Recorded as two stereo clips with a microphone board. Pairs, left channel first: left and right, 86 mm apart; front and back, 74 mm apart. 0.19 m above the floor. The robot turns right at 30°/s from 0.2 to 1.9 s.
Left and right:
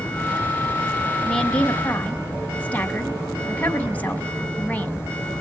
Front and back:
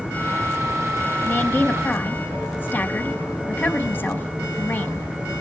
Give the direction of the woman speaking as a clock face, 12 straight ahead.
11 o'clock.